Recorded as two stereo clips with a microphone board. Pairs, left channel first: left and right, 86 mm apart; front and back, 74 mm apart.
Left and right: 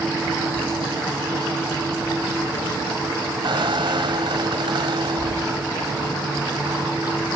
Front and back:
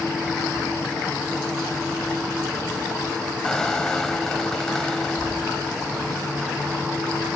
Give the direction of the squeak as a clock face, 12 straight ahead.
3 o'clock.